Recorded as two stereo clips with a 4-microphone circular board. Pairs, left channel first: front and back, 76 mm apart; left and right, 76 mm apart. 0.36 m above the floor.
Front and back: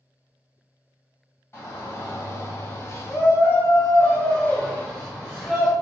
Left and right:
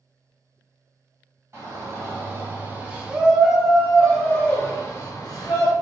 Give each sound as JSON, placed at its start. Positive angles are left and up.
{"t": 1.5, "sound": "a shout", "azimuth_deg": -50, "distance_m": 1.6}